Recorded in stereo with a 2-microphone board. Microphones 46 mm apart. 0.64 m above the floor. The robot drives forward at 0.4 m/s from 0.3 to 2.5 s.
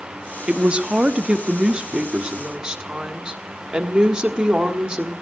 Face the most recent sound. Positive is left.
turn(degrees=-15)  # may be behind; listen again after turning